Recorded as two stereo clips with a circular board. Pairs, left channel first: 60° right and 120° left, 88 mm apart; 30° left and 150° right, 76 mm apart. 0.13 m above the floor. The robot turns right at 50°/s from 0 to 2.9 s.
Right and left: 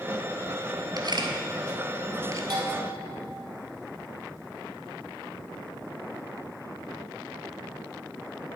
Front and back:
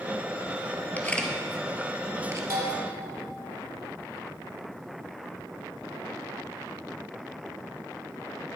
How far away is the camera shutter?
About 1.2 m.